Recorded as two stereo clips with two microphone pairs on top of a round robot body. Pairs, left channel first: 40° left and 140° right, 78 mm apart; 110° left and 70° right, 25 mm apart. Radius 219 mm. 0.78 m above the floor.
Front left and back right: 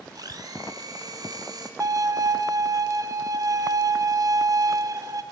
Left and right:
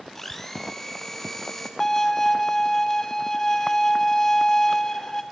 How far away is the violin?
About 1.2 m.